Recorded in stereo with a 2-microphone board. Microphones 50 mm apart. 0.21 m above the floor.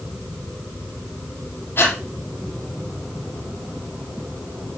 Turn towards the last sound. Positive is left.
turn(degrees=45)  # may be behind; listen again after turning